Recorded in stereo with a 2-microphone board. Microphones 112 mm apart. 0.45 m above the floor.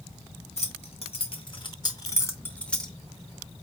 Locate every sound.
0.6 s keys jangling: 65° left (ahead or behind), 1.1 m; by 2.9 s 5° left (ahead or behind), 0.9 m